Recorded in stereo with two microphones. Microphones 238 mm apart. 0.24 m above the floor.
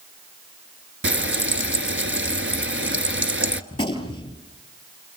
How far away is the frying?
About 1.1 m.